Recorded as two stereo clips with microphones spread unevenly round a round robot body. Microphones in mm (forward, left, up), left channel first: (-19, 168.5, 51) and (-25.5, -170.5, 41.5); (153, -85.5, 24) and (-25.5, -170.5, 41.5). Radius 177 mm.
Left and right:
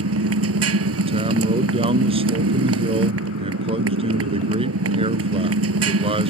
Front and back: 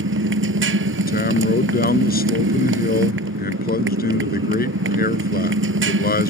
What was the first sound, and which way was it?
A motorcycle, 140° right.